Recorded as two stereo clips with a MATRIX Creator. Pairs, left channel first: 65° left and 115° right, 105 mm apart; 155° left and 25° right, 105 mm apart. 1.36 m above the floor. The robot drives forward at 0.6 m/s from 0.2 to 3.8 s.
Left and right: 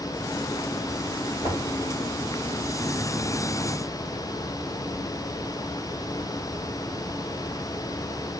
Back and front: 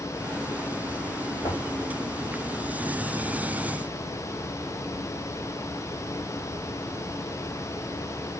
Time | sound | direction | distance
1.4 | knocking | 110° left | 4.5 m